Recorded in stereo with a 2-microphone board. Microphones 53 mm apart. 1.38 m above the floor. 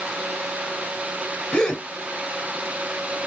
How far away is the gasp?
About 1.9 m.